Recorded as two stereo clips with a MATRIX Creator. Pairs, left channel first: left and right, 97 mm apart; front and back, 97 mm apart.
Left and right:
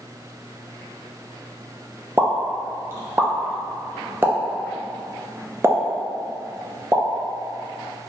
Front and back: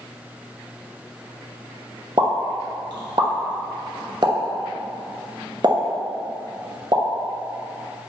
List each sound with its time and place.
2.2 s a pop: 150° right, 0.6 m